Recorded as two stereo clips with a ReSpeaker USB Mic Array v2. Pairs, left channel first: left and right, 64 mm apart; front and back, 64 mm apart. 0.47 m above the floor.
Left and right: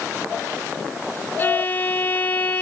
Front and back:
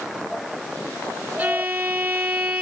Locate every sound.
1.4 s a violin: 130° left, 1.1 m